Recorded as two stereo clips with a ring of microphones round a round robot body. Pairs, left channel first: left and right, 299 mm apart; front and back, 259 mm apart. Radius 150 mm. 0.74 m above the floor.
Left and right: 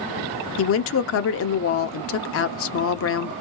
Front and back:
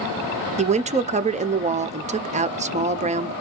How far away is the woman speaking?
About 0.7 m.